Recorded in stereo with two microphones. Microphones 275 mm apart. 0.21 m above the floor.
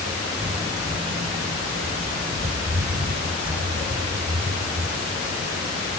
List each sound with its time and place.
0.4 s footsteps: 5° right (ahead or behind), 0.7 m; by 5.8 s 35° right (ahead or behind), 3.5 m